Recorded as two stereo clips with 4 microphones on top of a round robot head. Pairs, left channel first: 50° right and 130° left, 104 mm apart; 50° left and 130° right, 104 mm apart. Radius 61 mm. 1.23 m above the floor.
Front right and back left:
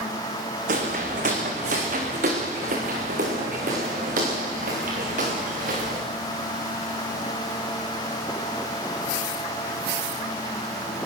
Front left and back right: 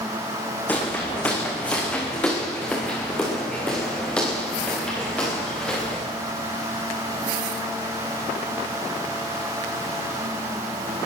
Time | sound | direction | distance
0.7 | footsteps | 125° left | 5.5 m